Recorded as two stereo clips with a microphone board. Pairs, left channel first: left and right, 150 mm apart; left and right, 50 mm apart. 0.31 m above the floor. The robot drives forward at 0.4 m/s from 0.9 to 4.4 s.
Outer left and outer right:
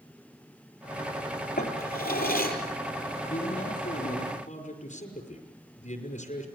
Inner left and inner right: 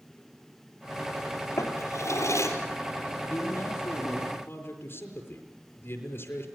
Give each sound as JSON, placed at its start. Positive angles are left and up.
{"t": 1.6, "sound": "a drawer", "side_deg": 85, "distance_m": 4.5}
{"t": 3.3, "sound": "a man speaking", "side_deg": 55, "distance_m": 5.5}